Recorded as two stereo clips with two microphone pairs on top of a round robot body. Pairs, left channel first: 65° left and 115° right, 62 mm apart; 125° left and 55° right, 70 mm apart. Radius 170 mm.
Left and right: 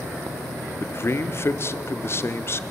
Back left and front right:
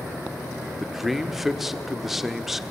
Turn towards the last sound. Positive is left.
turn(degrees=30)